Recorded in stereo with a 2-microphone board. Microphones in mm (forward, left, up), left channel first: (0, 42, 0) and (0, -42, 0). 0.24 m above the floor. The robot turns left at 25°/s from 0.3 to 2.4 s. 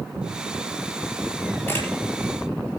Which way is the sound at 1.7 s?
25° left (ahead or behind).